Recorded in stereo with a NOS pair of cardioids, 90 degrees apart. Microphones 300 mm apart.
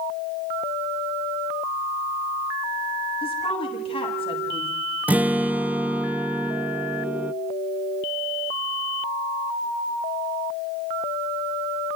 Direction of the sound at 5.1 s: 5° right.